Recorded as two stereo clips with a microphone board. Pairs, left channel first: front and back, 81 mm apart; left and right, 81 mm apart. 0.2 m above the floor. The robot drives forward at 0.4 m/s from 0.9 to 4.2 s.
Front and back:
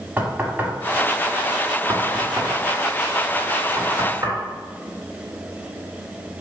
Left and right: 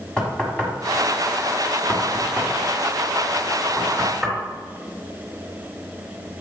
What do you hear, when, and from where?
0.2 s knocking: 150° left, 1.4 m; by 4.4 s 170° left, 2.5 m